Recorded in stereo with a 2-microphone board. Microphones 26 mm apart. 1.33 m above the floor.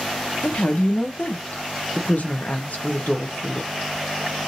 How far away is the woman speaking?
About 0.7 m.